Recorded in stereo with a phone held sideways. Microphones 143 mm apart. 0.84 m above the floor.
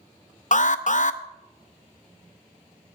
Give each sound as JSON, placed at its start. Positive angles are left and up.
{"t": 0.5, "sound": "an alarm", "side_deg": 60, "distance_m": 0.6}